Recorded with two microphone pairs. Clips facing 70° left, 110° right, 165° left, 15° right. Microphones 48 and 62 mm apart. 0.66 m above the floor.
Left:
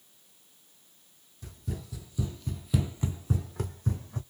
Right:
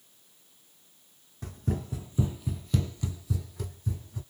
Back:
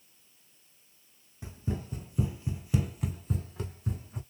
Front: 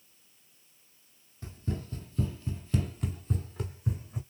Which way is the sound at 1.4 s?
125° right.